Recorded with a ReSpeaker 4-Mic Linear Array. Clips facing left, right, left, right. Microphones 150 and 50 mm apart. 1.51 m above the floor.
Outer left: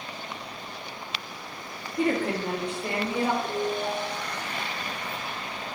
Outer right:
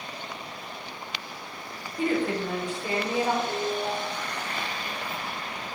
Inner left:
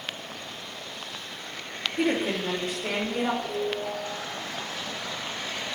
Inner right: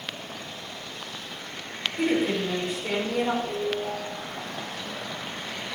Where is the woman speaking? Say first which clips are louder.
Even, inner right 2 dB; 60° left (ahead or behind), 3 m.